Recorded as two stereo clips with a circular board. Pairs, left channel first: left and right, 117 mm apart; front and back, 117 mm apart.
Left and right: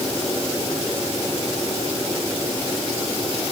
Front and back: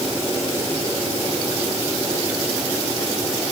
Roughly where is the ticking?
I don't hear ticking.